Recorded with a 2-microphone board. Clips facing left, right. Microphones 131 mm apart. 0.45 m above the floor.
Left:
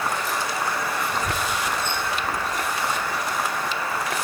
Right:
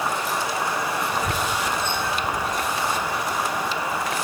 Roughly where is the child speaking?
Centre.